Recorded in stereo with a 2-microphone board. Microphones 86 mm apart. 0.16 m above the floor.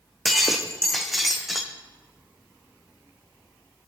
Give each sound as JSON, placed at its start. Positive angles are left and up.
{"t": 0.2, "sound": "breaking glass", "side_deg": 0, "distance_m": 2.5}